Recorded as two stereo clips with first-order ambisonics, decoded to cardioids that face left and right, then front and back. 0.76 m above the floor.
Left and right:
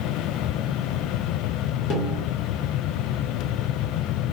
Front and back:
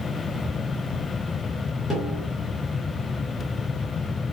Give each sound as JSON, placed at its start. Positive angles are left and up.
{"t": 1.9, "sound": "a snare drum", "azimuth_deg": 80, "distance_m": 1.3}